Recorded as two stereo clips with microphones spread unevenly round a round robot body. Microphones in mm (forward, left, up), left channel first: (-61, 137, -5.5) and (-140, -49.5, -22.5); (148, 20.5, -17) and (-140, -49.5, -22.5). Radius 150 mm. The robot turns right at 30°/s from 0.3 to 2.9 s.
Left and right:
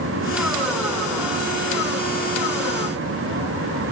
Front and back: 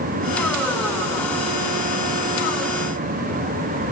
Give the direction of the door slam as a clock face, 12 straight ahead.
I don't hear a door slam.